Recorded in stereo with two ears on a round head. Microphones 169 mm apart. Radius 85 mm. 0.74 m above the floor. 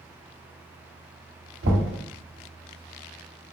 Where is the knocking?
65° right (ahead or behind), 1.3 m.